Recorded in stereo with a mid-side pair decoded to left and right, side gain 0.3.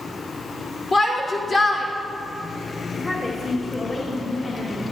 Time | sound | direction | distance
0.9 | a shout | 65° left | 3 m
2.9 | a woman speaking | 50° left | 1.7 m